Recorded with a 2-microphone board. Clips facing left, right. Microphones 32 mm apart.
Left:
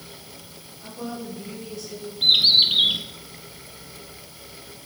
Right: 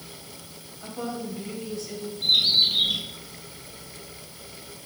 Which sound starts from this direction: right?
A woman speaking, at 0.8 s.